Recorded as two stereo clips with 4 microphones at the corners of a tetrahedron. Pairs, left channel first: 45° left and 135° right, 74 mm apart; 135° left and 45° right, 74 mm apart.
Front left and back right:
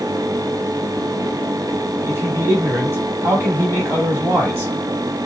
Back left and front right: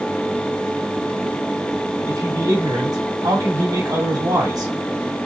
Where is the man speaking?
80° right, 3 m.